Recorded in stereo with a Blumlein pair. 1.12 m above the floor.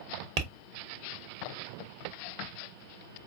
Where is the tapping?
40° right, 1.0 m.